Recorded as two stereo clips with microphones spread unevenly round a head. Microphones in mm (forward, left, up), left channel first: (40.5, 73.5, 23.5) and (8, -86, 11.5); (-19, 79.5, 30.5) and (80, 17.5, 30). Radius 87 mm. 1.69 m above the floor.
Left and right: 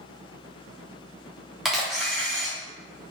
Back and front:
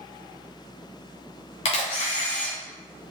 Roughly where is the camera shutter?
Behind.